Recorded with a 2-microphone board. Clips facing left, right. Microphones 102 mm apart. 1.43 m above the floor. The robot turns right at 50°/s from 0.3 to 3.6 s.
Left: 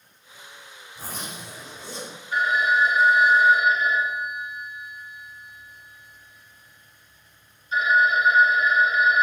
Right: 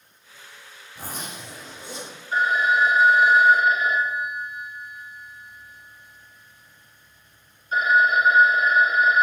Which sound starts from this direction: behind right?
A phone ringing, at 2.3 s.